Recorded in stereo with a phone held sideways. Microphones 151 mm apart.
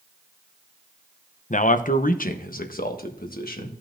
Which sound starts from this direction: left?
A man speaking, at 1.5 s.